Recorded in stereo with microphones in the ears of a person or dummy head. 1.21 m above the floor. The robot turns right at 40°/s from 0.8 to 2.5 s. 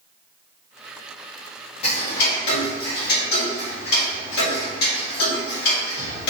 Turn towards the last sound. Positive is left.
turn(degrees=65)  # may be behind; listen again after turning